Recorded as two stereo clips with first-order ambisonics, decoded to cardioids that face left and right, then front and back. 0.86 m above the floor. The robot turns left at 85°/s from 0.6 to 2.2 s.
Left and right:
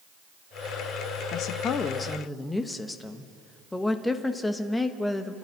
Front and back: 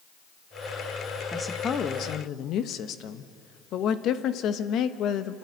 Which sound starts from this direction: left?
A woman speaking, at 1.3 s.